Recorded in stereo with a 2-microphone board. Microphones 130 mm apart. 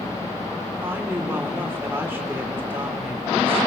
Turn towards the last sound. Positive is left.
turn(degrees=-15)  # may be behind; listen again after turning